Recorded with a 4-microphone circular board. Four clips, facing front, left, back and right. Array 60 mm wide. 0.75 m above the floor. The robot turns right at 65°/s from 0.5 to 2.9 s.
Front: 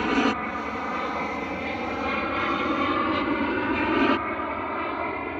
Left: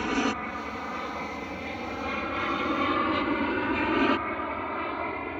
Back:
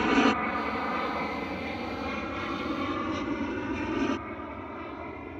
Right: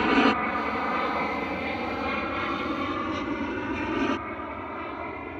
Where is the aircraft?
80° right; by 5.4 s 15° left.